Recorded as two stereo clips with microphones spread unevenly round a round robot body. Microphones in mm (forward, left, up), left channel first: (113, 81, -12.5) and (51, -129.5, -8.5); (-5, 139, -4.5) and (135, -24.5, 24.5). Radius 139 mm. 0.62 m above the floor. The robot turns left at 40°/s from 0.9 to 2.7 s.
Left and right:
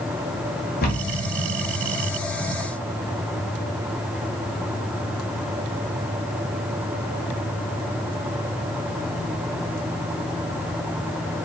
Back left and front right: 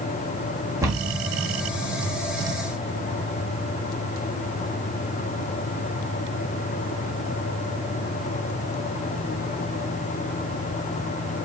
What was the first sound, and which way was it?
A cupboard door, 25° left.